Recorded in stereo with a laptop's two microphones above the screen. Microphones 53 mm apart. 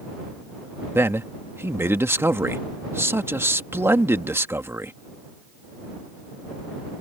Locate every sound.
0.9 s a man speaking: 50° right (ahead or behind)